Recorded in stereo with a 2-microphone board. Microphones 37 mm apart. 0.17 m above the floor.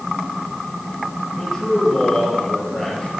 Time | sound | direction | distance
1.4 | a man speaking | 10° left (ahead or behind) | 4.5 m